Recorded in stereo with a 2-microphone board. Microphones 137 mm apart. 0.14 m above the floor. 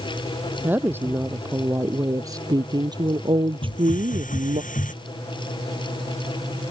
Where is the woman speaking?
15° right (ahead or behind); by 4.6 s 55° right (ahead or behind).